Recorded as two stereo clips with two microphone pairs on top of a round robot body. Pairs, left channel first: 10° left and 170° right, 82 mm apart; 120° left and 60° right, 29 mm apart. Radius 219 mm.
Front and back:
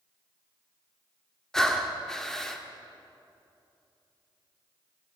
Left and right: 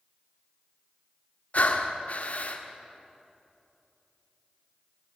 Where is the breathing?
100° left, 2 m.